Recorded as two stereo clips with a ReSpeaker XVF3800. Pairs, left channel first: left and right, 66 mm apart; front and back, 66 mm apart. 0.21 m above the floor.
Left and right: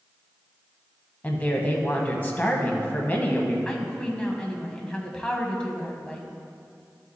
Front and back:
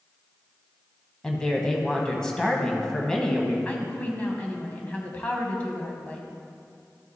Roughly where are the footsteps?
No footsteps in this recording.